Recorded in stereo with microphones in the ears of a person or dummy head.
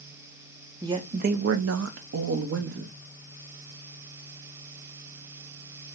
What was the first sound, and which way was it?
A woman speaking, 15° right (ahead or behind).